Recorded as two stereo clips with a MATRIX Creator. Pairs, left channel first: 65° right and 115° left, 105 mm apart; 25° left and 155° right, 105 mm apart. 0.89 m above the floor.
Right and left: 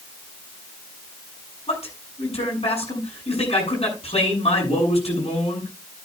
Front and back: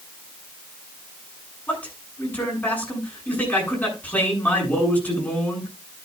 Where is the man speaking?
50° right, 7.5 m.